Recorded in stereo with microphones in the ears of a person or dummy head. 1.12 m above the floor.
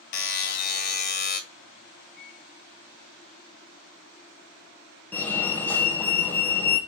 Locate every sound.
0.1 s a buzzer: 50° left (ahead or behind), 1.5 m
2.2 s a microwave: 55° left (ahead or behind), 1.4 m
5.1 s a fire alarm: 10° left (ahead or behind), 1.5 m